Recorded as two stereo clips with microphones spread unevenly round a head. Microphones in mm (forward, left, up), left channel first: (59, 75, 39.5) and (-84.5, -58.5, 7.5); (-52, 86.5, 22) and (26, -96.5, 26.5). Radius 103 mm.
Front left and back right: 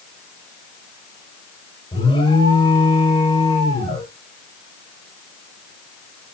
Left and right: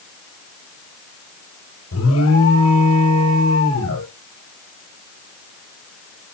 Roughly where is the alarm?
Left.